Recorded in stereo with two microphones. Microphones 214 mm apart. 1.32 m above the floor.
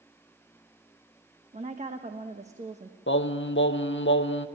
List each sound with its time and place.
1.5 s a woman speaking: 30° right (ahead or behind), 1.1 m
3.1 s singing: 60° left (ahead or behind), 0.7 m